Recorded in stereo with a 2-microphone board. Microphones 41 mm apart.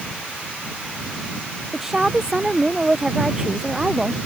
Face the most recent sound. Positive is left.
turn(degrees=-20)  # may be behind; listen again after turning